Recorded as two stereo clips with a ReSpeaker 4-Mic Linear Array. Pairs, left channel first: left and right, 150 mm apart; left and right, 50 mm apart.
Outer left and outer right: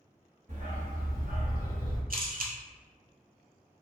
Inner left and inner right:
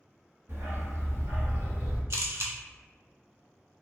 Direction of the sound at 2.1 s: 70° right (ahead or behind).